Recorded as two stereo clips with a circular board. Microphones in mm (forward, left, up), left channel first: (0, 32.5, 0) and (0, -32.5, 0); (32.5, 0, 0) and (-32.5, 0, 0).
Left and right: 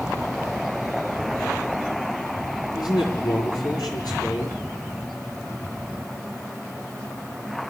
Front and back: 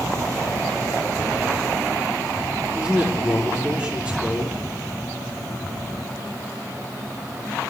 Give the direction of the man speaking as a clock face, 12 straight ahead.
9 o'clock.